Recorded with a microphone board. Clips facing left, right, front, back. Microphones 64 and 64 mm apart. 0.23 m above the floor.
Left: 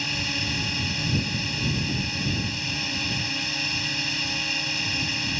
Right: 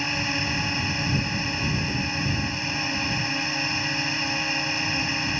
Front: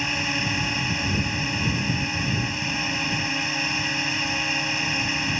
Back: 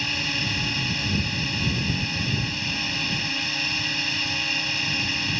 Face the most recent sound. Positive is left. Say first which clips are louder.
# right 3 dB, front 2 dB
turn(degrees=-55)